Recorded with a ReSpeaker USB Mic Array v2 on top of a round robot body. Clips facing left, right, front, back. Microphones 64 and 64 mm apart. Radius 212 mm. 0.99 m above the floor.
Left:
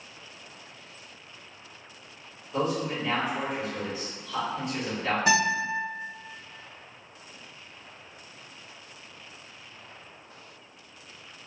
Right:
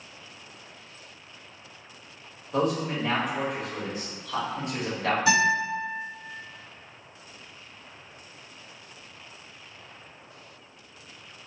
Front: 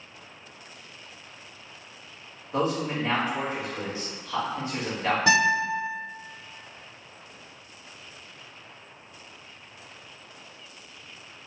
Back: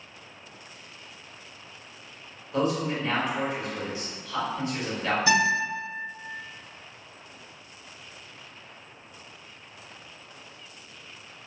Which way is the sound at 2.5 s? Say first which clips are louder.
Right 2 dB, even; 60° right.